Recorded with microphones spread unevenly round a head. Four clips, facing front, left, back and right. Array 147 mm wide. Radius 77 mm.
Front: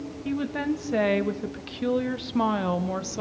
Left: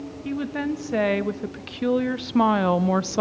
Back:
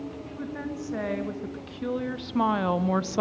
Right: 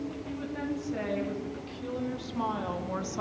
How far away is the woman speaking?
About 2.5 m.